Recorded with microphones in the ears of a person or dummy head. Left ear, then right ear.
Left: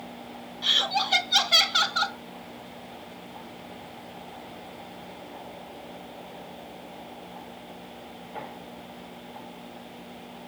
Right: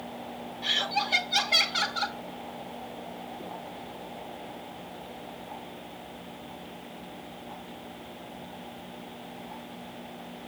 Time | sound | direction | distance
0.6 | laughter | 30° left (ahead or behind) | 1.0 m